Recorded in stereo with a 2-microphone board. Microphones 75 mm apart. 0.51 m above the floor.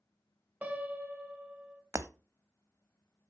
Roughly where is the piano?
Right.